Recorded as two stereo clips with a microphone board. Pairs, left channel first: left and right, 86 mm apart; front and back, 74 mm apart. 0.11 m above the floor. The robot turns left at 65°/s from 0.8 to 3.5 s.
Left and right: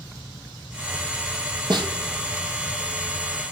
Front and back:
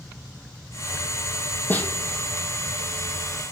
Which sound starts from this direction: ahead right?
A snare drum, at 1.7 s.